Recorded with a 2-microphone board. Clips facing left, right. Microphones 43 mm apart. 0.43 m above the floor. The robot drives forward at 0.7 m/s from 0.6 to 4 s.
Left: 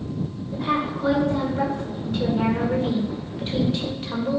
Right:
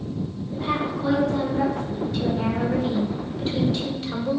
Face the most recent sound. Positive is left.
turn(degrees=25)  # may be behind; listen again after turning